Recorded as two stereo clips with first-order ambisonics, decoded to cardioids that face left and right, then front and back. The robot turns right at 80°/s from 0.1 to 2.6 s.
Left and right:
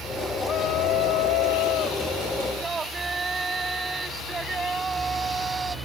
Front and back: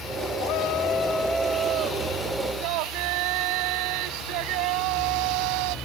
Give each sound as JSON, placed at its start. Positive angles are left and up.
{"t": 0.4, "sound": "a shout", "azimuth_deg": 20}